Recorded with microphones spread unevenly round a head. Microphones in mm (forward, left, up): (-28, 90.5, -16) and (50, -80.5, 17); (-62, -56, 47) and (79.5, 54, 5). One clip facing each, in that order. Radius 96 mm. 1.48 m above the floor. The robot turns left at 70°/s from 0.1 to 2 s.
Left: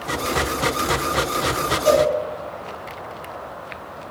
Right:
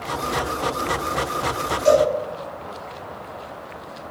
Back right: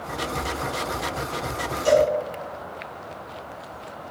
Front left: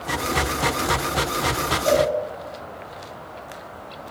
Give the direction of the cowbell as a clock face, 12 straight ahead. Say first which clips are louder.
Right 1 dB, back right 1 dB; 4 o'clock.